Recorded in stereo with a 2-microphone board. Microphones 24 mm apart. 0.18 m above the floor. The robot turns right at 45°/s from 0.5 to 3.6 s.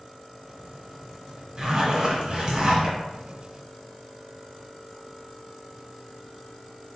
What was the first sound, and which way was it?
A zipper, 135° right.